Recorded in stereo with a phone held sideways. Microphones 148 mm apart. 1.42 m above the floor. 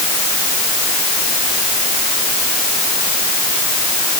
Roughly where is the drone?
I don't hear a drone.